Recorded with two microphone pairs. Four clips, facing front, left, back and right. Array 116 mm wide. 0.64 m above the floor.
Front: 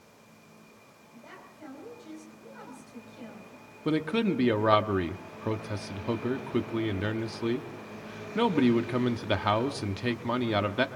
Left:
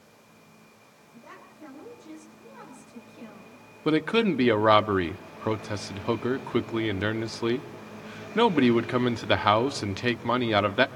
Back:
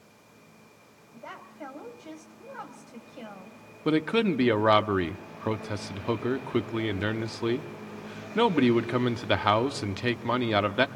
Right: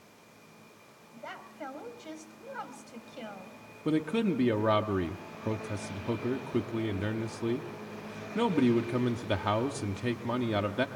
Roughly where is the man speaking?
Left.